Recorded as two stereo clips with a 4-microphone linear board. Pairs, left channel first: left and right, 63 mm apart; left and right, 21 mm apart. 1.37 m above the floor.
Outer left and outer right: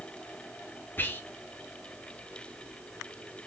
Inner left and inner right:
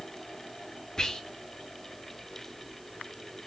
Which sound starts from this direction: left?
Whispering, at 1.0 s.